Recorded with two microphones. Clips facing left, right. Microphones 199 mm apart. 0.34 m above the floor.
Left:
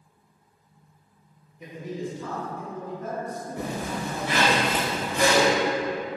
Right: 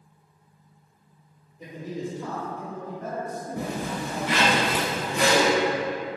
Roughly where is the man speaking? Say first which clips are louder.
Even; right.